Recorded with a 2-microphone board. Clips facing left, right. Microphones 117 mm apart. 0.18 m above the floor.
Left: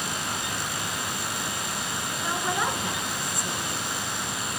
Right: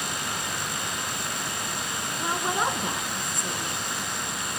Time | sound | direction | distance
2.2 | a woman speaking | 25° right (ahead or behind) | 1.9 m